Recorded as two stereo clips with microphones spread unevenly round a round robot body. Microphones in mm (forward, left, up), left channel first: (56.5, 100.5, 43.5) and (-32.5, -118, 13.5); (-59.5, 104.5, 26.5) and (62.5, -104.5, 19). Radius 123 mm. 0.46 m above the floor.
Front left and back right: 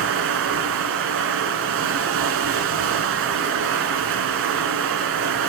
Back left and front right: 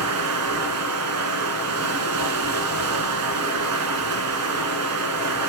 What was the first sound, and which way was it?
Running water, 80° right.